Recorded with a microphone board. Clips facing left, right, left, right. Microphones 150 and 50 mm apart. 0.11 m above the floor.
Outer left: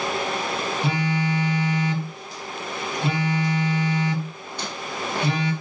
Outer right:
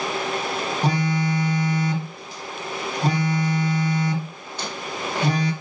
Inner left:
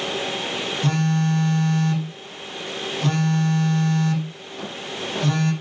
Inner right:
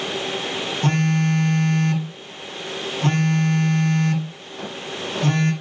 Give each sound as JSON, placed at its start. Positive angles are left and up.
{"t": 0.8, "sound": "a phone buzzing", "side_deg": -40, "distance_m": 2.0}